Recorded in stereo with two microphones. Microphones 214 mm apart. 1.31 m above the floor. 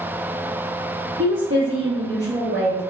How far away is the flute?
No flute in this recording.